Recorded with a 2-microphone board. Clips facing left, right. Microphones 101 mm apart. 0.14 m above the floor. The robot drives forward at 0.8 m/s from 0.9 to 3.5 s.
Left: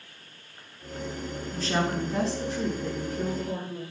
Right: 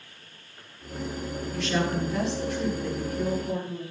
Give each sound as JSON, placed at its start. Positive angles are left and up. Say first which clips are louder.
{"t": 1.5, "sound": "a woman speaking", "louder": "even", "side_deg": 30, "distance_m": 1.6}